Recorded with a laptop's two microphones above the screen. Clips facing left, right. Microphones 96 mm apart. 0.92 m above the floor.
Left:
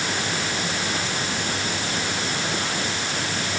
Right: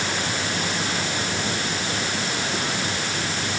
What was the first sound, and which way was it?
Only background noise.